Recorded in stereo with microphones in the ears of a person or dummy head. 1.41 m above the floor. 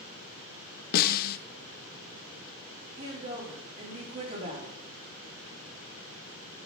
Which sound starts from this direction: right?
A woman speaking, at 3.0 s.